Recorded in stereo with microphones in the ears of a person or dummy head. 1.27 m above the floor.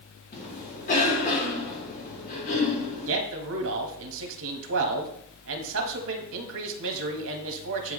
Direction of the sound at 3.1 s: 70° right (ahead or behind).